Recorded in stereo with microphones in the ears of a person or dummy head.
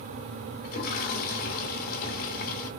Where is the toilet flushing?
45° left (ahead or behind), 1.0 m.